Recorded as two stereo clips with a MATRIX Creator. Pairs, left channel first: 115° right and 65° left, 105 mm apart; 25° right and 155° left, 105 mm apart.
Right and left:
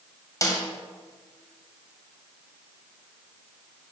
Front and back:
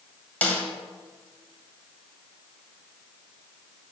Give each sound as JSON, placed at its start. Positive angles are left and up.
{"t": 0.4, "sound": "a snare drum", "azimuth_deg": -90, "distance_m": 1.8}